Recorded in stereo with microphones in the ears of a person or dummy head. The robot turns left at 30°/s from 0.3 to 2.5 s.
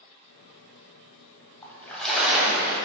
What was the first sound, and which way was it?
A splash, 15° left (ahead or behind).